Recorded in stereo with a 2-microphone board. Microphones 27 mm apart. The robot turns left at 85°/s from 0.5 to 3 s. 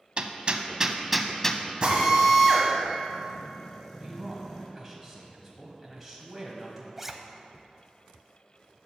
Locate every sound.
0.2 s hammering: 40° right (ahead or behind), 0.6 m; by 1.6 s 30° left (ahead or behind), 0.6 m
1.8 s a drill: 40° right (ahead or behind), 2.0 m; by 4.7 s 20° left (ahead or behind), 2.0 m
4.0 s a man speaking: centre (ahead or behind), 1.1 m
7.0 s a zipper: 10° right (ahead or behind), 0.6 m